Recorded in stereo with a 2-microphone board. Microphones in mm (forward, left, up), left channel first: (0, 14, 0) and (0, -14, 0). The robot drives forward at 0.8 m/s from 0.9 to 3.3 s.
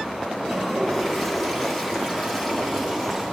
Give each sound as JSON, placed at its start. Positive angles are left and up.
{"t": 0.4, "sound": "a toilet flushing", "side_deg": 15, "distance_m": 6.5}